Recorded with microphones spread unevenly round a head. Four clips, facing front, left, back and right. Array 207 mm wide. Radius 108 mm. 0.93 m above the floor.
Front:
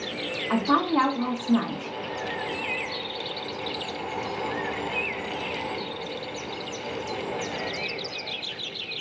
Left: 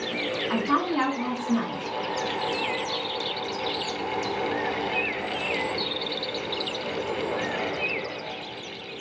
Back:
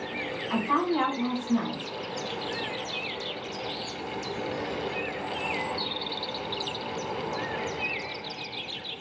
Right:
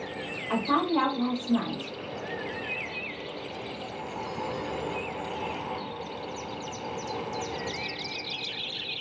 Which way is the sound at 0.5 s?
5° left.